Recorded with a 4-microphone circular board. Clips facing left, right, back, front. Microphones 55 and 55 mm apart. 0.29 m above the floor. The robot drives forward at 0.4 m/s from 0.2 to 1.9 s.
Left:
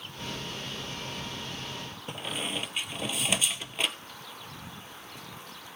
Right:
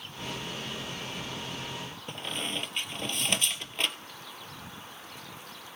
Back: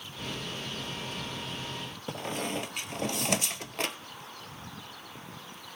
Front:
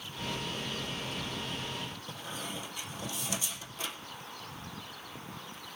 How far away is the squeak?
About 0.6 m.